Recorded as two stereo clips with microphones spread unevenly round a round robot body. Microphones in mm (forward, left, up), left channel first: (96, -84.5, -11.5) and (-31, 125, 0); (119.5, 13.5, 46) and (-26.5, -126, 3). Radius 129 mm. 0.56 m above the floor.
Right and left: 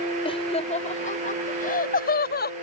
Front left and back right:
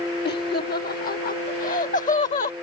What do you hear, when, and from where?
0.2 s laughter: 5° left; by 2.5 s 15° right